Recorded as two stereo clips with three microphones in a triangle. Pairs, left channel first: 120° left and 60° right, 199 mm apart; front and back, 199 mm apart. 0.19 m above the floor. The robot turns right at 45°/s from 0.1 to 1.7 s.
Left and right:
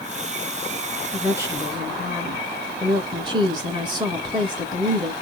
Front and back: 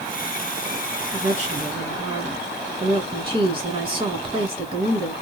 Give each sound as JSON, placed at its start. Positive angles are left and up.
{"t": 1.1, "sound": "a woman speaking", "azimuth_deg": -145, "distance_m": 2.5}